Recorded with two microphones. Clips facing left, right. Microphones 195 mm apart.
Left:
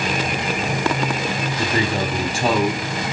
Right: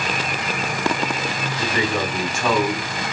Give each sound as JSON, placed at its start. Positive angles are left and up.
{"t": 1.6, "sound": "a man speaking", "side_deg": 35, "distance_m": 1.5}